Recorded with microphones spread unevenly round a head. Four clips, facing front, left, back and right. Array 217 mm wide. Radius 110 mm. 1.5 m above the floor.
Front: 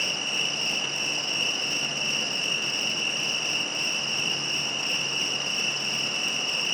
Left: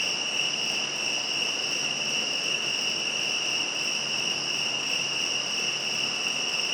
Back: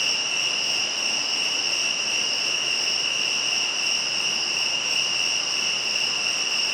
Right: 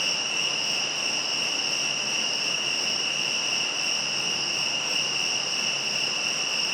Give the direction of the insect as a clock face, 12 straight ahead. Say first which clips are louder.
Right 1 dB, back 1 dB; 12 o'clock.